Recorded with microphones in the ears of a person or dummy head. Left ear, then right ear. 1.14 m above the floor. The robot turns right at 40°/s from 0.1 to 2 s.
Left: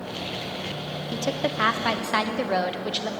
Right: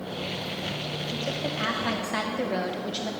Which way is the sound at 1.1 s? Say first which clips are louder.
Left 6 dB; 115° left.